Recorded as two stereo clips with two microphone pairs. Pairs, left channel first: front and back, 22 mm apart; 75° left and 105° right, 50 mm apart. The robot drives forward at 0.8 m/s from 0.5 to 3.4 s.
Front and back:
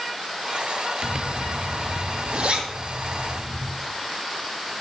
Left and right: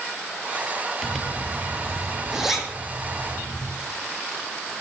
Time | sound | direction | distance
1.0 | a zipper | 160° left | 0.8 m